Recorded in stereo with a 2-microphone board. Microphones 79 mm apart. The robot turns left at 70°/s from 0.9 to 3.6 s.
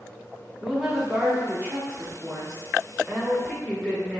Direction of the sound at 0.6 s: 25° right.